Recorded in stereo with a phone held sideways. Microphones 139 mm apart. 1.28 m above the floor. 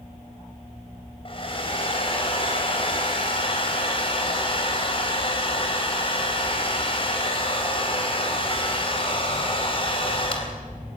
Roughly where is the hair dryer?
Left.